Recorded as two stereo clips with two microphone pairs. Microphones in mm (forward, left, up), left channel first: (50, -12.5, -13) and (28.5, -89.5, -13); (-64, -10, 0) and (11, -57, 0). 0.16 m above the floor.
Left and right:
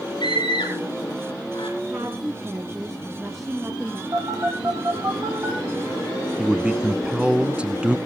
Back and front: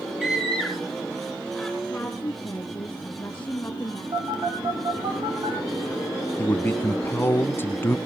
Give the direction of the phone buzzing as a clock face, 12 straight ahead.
2 o'clock.